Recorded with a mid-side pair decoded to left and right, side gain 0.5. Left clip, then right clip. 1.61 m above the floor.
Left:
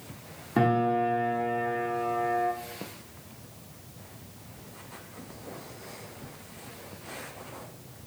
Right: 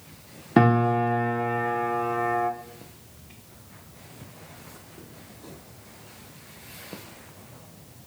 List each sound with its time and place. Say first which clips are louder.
0.6 s a piano: right 4 dB; 50° right, 0.5 m